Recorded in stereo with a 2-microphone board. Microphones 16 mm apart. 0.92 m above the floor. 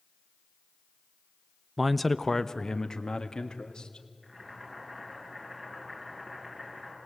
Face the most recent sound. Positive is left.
turn(degrees=-25)  # may be behind; listen again after turning